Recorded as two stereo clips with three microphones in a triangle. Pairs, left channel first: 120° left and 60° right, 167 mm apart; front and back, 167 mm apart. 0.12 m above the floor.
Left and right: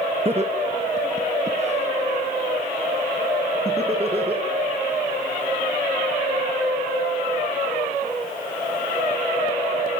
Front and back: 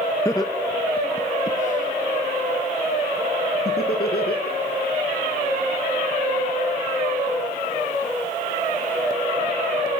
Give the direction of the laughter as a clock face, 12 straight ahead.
2 o'clock.